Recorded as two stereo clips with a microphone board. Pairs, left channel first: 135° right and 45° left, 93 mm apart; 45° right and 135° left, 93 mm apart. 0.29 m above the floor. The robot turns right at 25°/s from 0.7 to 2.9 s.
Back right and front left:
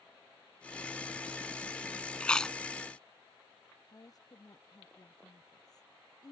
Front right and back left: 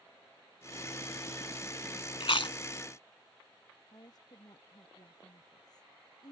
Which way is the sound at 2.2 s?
60° right.